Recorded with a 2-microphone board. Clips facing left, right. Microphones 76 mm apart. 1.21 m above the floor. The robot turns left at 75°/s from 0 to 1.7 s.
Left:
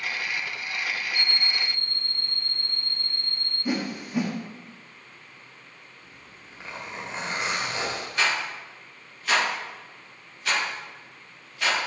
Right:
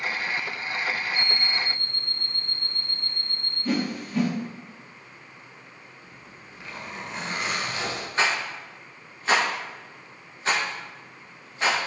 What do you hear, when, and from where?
1.1 s an alarm clock: 40° left, 1.5 m; by 3.5 s straight ahead, 1.5 m
3.6 s a whoosh: 15° left (ahead or behind), 1.2 m
6.0 s a zipper: 35° left (ahead or behind), 2.5 m
8.2 s a rattle: 30° right (ahead or behind), 1.9 m